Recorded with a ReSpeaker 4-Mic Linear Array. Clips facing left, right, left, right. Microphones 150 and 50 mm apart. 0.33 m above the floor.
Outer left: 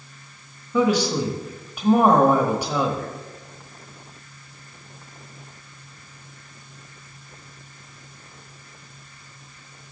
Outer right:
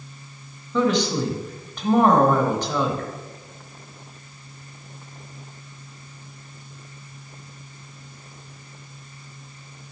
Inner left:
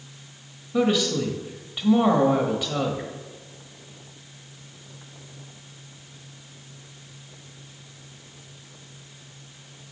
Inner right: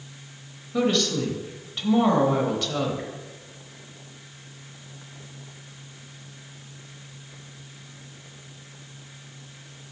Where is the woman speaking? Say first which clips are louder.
Outer left 1 dB, inner left 1 dB; 10° left (ahead or behind), 1.1 m.